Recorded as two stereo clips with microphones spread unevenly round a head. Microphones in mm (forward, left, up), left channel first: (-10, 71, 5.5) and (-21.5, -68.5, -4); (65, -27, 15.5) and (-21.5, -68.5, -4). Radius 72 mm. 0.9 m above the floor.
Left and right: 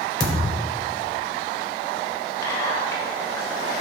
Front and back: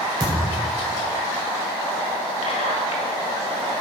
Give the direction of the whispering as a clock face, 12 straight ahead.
12 o'clock.